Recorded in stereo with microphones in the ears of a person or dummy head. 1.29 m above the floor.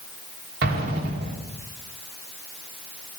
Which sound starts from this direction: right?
An explosion, at 0.6 s.